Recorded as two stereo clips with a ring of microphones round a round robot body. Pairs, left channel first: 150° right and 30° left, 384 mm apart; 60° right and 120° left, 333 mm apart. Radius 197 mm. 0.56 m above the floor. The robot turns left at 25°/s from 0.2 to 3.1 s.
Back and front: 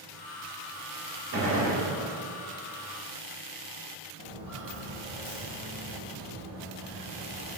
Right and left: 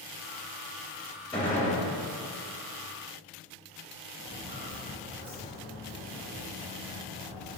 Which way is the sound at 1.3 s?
15° left.